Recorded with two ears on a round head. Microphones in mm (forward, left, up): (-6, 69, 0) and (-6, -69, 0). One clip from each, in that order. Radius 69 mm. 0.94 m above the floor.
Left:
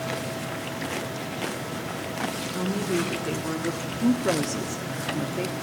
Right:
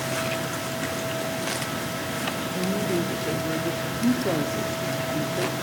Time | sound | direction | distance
2.4 | a woman speaking | 10° left (ahead or behind) | 3 m